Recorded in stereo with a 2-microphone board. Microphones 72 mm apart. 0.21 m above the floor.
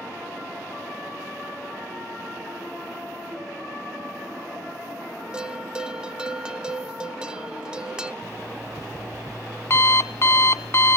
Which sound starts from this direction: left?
An alarm clock, at 8.2 s.